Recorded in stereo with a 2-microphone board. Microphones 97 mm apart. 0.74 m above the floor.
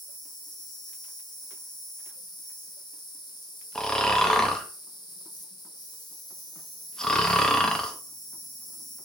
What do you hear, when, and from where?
0.0 s an insect: 45° left (ahead or behind), 0.9 m
3.8 s snoring: 5° left (ahead or behind), 0.7 m